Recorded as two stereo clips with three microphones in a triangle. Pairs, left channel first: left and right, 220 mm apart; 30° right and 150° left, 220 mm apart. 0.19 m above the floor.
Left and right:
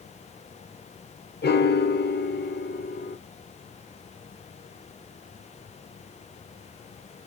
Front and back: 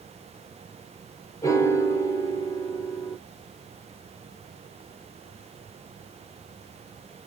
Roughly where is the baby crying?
No baby crying in this recording.